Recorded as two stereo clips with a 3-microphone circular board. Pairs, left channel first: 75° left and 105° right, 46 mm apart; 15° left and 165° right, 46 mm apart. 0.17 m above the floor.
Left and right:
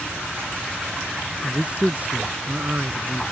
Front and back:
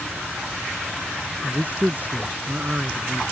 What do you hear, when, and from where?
1.4 s a man speaking: 155° right; by 3.2 s 120° right